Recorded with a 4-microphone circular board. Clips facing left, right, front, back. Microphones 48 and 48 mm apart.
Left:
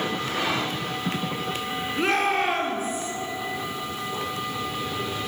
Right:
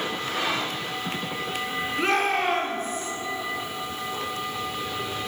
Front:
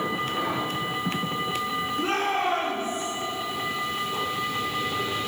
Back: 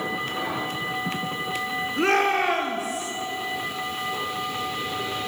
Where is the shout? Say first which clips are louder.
Left 1 dB, back 6 dB; straight behind, 2.5 m; by 3.1 s 175° left, 3.5 m.